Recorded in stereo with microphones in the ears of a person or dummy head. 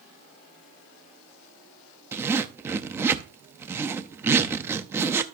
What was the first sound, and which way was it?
A zipper, 10° right (ahead or behind).